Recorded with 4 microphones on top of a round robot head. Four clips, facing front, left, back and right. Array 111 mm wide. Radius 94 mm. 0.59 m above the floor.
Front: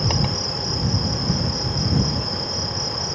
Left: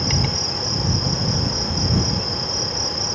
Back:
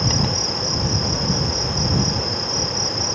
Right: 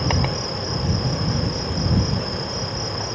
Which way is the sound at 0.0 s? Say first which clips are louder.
Right 1 dB, back 1 dB; 70° right.